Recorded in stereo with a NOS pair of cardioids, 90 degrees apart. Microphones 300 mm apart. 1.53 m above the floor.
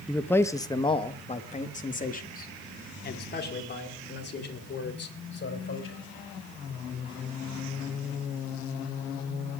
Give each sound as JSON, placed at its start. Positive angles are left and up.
{"t": 0.1, "sound": "a man speaking", "azimuth_deg": 0, "distance_m": 1.6}